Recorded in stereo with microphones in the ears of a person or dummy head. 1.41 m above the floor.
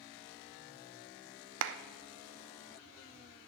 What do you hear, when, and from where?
1.6 s a clap: 65° right (ahead or behind), 0.5 m